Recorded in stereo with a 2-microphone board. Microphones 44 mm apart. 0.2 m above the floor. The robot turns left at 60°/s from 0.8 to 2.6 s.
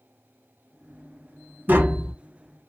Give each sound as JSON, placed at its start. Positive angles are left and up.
{"t": 1.7, "sound": "tapping", "side_deg": -40, "distance_m": 0.9}